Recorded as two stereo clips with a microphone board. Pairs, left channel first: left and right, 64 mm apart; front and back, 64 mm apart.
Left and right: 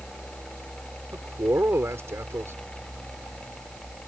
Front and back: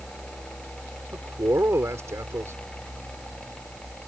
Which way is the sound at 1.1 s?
135° right.